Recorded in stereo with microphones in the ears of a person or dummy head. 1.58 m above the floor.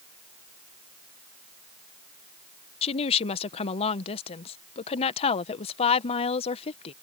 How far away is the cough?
I don't hear a cough.